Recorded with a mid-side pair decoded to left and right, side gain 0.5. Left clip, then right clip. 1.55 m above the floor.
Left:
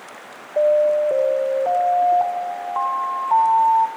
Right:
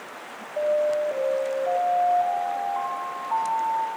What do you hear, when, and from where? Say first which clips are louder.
0.6 s an alarm: left 7 dB; 65° left, 2.5 m